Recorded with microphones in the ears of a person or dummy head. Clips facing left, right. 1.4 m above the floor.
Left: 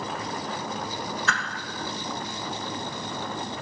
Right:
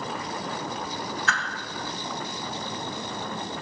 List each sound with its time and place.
1.3 s a whoosh: 80° left, 1.2 m